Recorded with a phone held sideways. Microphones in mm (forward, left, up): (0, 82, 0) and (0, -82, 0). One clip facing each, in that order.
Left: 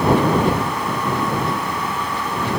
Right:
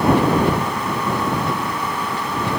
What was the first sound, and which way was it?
Only background noise.